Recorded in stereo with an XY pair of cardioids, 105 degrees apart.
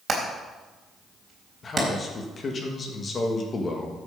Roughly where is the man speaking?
Ahead left.